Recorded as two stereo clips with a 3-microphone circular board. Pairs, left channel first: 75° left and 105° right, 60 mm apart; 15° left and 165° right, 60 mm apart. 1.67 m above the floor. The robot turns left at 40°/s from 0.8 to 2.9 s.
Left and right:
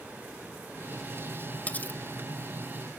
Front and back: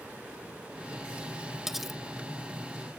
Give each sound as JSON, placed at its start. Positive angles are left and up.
{"t": 1.7, "sound": "cutlery clinking", "azimuth_deg": 115, "distance_m": 0.9}